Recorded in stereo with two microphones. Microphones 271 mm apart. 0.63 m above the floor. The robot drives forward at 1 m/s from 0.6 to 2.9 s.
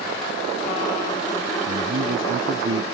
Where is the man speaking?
45° right (ahead or behind); by 2.8 s 50° right (ahead or behind).